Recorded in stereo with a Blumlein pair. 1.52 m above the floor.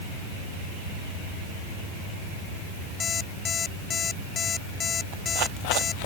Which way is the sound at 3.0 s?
20° left.